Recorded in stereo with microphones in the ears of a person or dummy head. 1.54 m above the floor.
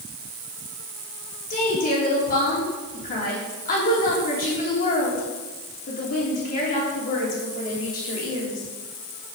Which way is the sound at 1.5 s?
40° left (ahead or behind).